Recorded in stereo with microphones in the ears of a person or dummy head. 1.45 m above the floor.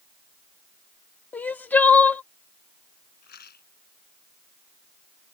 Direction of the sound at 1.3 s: 10° left (ahead or behind).